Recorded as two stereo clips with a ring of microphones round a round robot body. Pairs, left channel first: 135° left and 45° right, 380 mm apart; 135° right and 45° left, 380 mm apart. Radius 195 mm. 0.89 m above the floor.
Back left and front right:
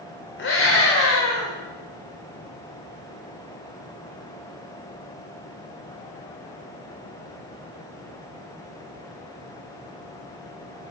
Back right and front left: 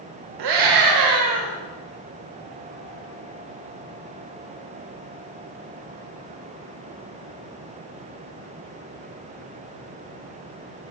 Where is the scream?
75° left, 2.5 m; by 1.5 s 90° left, 3 m.